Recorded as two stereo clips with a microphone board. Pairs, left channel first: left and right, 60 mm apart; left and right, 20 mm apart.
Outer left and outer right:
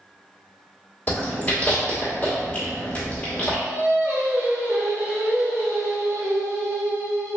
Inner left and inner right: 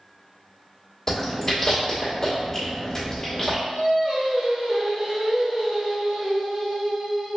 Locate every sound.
1.1 s chewing: 25° left (ahead or behind), 1.2 m
3.6 s singing: 40° right (ahead or behind), 1.0 m